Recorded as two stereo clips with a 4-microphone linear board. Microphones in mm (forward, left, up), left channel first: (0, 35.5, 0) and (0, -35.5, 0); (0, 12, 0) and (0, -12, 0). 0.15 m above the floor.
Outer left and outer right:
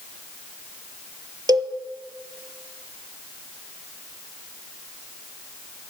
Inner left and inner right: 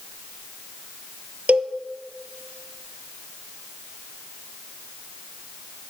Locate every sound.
1.5 s a cowbell: 75° right (ahead or behind), 0.6 m